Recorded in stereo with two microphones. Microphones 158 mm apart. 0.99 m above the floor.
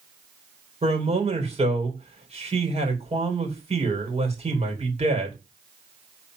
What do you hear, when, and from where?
0.8 s a man speaking: 45° right (ahead or behind), 3.5 m